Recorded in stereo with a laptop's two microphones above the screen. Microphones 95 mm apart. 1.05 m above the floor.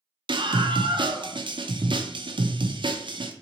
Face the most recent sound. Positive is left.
turn(degrees=-55)  # may be behind; listen again after turning